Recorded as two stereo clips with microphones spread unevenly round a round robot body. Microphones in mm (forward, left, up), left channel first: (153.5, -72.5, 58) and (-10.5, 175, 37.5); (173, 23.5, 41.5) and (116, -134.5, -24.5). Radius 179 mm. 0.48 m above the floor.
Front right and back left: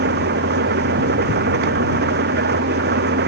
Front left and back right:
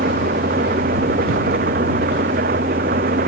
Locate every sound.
0.0 s an engine running: 175° right